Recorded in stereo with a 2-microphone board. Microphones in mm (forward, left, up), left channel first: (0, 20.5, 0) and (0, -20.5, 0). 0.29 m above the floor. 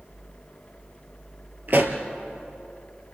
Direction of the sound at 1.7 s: 50° right (ahead or behind).